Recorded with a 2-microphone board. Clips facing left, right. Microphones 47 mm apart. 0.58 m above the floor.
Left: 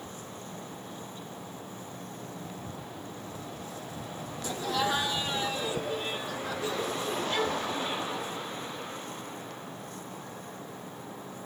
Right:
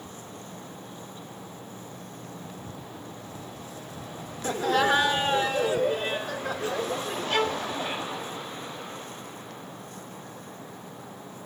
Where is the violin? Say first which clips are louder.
Right 6 dB; 85° right, 0.8 m.